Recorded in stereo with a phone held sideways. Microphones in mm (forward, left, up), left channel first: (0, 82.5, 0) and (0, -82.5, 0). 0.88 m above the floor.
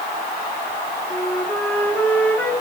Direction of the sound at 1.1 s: 10° left (ahead or behind).